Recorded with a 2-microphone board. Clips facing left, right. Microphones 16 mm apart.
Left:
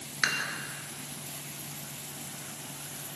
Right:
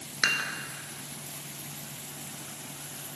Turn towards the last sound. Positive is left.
turn(degrees=-45)  # may be behind; listen again after turning